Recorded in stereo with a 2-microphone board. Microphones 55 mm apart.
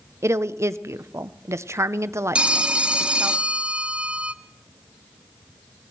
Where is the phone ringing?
15° right (ahead or behind), 0.6 m.